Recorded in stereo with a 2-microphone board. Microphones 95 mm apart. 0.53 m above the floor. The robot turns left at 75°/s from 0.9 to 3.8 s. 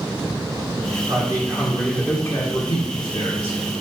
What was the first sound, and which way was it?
A man speaking, 140° right.